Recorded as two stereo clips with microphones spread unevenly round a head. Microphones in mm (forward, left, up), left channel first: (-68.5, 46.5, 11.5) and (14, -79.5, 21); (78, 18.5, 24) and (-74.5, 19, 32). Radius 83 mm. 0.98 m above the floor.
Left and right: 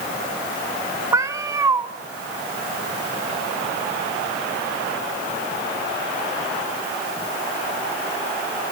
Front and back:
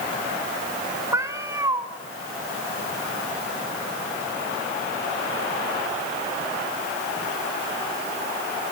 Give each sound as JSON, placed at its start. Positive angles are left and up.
{"t": 1.1, "sound": "a cat meowing", "azimuth_deg": -115, "distance_m": 1.1}